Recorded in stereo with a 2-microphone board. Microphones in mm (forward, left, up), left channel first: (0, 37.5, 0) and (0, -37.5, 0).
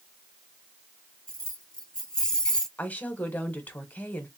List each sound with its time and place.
1.3 s keys jangling: 10° left (ahead or behind), 2.5 m; by 2.7 s 5° left (ahead or behind), 0.8 m
2.8 s a woman speaking: 20° left (ahead or behind), 1.1 m